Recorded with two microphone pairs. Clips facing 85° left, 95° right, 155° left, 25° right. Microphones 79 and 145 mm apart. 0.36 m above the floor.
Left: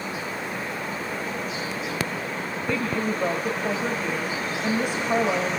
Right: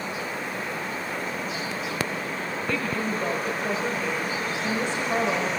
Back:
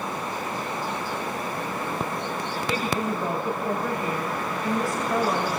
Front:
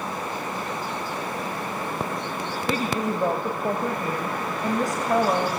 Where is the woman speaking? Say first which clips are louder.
Left 3 dB, front 2 dB; 15° left, 2.5 m.